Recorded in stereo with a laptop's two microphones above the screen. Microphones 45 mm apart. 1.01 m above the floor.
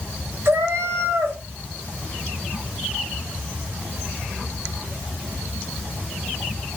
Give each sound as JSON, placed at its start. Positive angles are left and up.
{"t": 0.5, "sound": "a cat meowing", "side_deg": -70, "distance_m": 1.6}